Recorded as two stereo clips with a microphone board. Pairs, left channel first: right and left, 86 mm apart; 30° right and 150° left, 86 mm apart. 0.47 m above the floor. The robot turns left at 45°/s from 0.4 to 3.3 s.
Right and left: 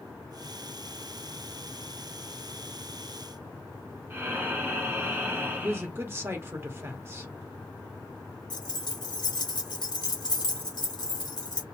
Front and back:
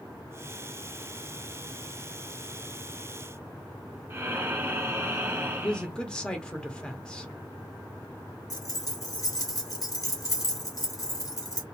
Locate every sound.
4.1 s breathing: 125° left, 0.9 m
5.6 s a man speaking: 45° left, 0.9 m
8.5 s keys jangling: 70° right, 0.8 m